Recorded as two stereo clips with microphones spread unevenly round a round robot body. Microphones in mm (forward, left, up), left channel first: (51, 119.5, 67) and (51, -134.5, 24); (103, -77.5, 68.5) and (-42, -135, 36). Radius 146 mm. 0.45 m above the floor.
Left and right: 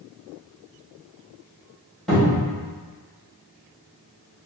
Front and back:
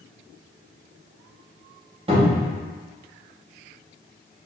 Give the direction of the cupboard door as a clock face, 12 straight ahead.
6 o'clock.